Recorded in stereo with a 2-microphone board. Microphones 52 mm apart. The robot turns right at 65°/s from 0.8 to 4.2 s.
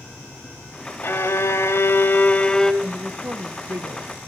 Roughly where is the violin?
Ahead left.